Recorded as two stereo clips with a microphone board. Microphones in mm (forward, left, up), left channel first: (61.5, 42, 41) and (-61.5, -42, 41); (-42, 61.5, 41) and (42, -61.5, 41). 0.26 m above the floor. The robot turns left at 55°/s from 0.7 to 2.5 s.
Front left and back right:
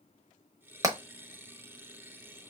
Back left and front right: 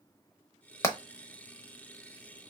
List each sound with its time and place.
0.8 s hammering: 175° left, 1.0 m; by 2.5 s 80° left, 1.0 m